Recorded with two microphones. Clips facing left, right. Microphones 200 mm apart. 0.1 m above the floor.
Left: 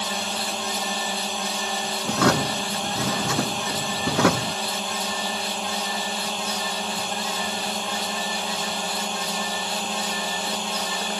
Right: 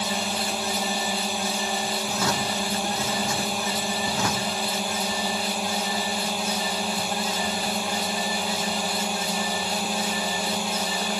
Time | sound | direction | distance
0.0 | a drone | 10° right (ahead or behind) | ?
2.0 | a drawer | 75° left (ahead or behind) | ?